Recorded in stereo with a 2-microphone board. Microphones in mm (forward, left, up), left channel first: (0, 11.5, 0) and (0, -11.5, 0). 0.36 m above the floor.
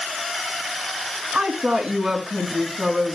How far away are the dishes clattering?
No dishes clattering in this recording.